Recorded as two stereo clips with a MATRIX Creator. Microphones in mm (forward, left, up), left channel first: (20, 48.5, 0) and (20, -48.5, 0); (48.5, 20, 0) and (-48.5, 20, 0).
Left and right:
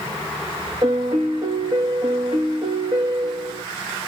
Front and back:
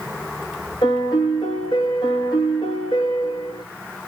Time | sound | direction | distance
0.8 | a piano | 45° right | 1.6 m